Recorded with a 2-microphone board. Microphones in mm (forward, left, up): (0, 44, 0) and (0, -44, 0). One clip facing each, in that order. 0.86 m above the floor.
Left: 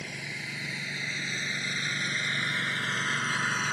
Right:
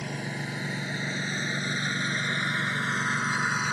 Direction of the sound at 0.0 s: 45° right (ahead or behind).